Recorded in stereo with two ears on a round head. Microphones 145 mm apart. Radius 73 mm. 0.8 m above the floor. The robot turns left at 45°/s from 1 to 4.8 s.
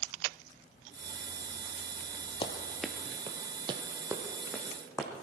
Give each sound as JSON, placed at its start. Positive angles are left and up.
{"t": 2.4, "sound": "running footsteps", "side_deg": 30, "distance_m": 1.0}